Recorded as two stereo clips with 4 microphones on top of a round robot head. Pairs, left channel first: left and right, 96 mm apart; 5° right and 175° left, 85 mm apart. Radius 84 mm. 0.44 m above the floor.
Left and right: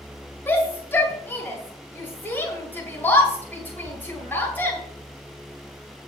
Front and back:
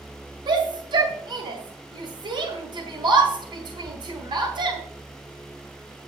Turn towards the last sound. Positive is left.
turn(degrees=160)